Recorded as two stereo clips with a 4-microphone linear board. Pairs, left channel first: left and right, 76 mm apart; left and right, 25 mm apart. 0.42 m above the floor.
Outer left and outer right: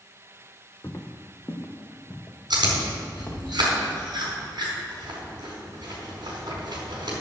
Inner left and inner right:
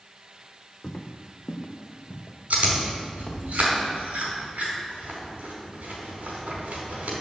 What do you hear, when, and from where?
0.8 s footsteps: 35° left (ahead or behind), 1.4 m; by 3.4 s 25° left (ahead or behind), 3 m
2.5 s chewing: 70° right (ahead or behind), 4.5 m